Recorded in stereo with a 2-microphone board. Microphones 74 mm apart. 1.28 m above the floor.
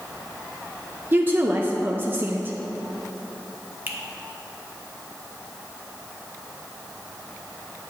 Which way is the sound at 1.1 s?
30° right (ahead or behind).